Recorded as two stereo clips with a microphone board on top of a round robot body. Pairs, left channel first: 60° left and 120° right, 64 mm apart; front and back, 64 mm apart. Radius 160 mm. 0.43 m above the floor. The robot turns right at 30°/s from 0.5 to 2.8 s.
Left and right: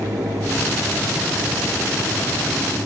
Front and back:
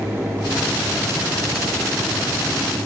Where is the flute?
No flute in this recording.